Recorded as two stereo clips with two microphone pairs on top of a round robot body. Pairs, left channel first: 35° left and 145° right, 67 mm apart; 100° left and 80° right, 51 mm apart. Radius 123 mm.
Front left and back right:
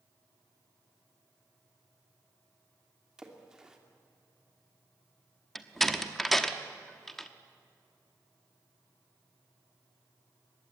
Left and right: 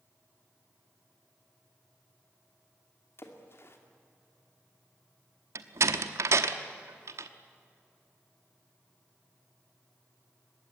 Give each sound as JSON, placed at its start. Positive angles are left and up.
{"t": 3.2, "sound": "a splash", "azimuth_deg": 130, "distance_m": 2.5}
{"t": 5.5, "sound": "a door slam", "azimuth_deg": -55, "distance_m": 1.0}